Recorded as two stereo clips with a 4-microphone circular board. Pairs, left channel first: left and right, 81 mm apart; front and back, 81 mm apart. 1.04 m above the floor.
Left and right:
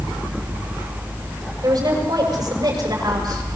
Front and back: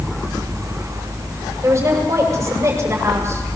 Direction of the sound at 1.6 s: 130° right.